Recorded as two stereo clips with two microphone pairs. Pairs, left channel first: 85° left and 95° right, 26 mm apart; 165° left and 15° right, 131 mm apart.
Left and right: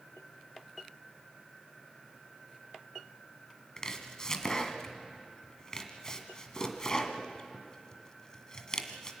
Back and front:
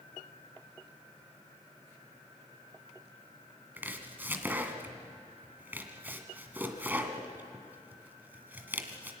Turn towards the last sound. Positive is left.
turn(degrees=45)